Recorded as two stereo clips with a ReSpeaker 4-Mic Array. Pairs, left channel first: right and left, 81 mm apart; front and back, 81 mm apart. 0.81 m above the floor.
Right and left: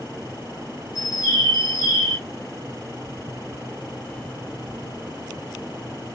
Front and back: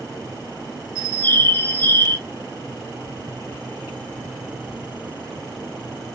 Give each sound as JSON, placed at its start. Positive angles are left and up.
{"t": 0.9, "sound": "a bird", "azimuth_deg": -50, "distance_m": 1.3}